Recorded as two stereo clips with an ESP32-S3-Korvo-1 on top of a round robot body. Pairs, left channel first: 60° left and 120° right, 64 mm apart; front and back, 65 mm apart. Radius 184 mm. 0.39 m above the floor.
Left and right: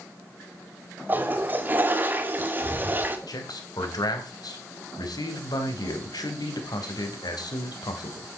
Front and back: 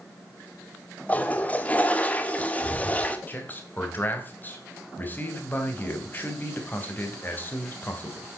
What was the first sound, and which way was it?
A toilet flushing, 65° right.